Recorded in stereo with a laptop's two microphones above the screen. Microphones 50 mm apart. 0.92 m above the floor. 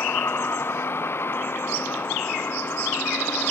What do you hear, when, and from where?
0.0 s a vehicle: 50° left (ahead or behind); by 3.5 s 45° left (ahead or behind)